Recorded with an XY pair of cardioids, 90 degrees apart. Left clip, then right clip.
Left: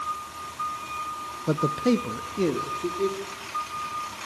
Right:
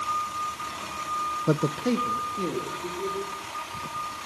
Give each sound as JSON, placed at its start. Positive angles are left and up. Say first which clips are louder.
{"t": 1.5, "sound": "a man speaking", "louder": "left 5 dB", "azimuth_deg": -20, "distance_m": 0.5}